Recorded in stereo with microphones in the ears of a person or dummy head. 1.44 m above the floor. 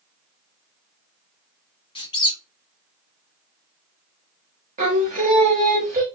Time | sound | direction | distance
1.9 | a squeak | 30° left (ahead or behind) | 0.6 m
4.8 | singing | 45° right (ahead or behind) | 1.0 m